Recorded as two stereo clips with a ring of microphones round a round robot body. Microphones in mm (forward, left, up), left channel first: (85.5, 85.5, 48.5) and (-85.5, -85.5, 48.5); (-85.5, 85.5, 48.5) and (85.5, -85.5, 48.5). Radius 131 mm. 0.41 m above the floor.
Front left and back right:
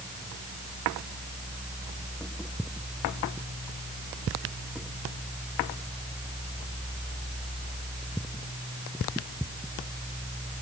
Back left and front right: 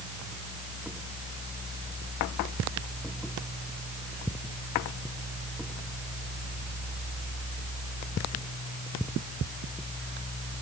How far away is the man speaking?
No man speaking in this recording.